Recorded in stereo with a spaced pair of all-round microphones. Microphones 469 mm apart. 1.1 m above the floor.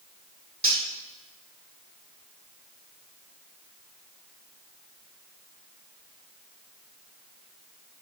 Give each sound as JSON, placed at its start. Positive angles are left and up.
{"t": 0.6, "sound": "cutlery clinking", "side_deg": -25, "distance_m": 1.9}